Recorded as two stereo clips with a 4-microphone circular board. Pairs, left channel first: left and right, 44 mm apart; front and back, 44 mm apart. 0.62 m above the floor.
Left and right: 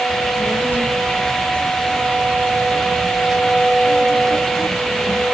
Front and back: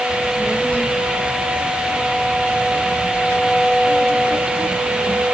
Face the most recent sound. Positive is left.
turn(degrees=20)